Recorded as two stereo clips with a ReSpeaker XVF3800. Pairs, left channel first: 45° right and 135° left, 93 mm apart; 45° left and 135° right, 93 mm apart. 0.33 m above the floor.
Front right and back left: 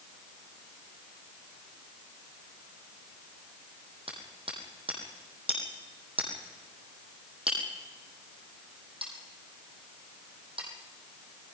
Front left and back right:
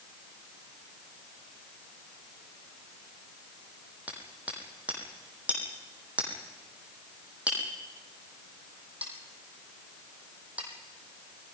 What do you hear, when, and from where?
4.1 s hammering: 150° left, 4.5 m